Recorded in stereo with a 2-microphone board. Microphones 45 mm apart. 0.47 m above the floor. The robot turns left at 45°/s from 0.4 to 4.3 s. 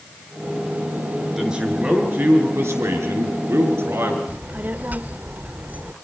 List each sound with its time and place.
1.4 s a man speaking: 10° right, 6.5 m; by 4.2 s 135° right, 6.5 m
4.3 s a child speaking: 40° right (ahead or behind), 0.8 m